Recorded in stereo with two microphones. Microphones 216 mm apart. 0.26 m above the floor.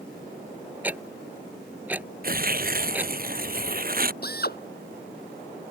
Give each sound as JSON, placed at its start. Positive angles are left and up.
{"t": 0.8, "sound": "ticking", "side_deg": -10}
{"t": 2.2, "sound": "tearing paper", "side_deg": -45}
{"t": 4.2, "sound": "a drill", "side_deg": 50}